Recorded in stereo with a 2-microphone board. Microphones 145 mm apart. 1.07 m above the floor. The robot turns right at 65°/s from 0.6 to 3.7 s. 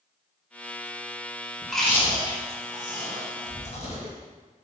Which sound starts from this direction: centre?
Chewing, at 1.6 s.